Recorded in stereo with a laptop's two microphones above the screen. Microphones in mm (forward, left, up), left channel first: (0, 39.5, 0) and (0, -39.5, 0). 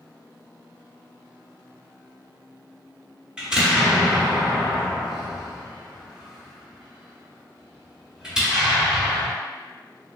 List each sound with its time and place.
3.4 s an explosion: 10° right (ahead or behind), 0.9 m